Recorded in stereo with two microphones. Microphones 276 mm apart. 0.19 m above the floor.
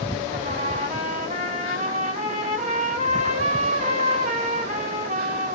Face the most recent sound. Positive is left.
turn(degrees=-30)  # may be behind; listen again after turning